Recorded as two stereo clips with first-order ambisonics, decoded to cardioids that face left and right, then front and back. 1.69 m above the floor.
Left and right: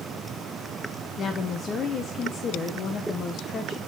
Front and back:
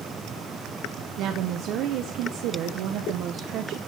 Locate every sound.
1.2 s a woman speaking: 150° left, 0.8 m